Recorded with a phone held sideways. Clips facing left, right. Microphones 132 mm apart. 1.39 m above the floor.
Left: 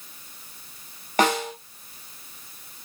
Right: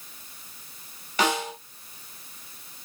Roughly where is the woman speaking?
No woman speaking in this recording.